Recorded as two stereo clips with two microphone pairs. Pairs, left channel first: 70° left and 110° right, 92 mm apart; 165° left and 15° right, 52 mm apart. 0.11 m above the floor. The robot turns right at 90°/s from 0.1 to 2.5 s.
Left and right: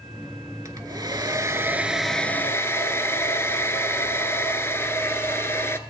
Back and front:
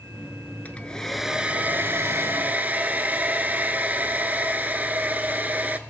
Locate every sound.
0.7 s a hair dryer: 145° right, 0.6 m; by 5.8 s 25° left, 0.6 m